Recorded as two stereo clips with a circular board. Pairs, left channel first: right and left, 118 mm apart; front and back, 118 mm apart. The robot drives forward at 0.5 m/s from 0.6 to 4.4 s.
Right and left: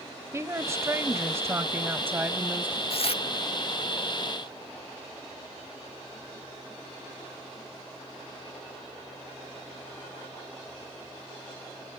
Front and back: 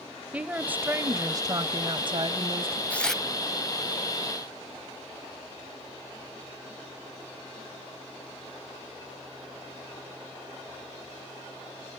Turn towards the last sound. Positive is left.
turn(degrees=-135)